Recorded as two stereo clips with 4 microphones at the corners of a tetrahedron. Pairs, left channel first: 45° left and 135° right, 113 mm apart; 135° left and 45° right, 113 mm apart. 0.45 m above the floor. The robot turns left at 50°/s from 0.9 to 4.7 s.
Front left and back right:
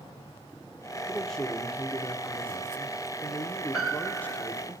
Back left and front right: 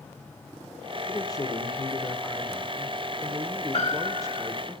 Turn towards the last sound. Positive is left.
turn(degrees=95)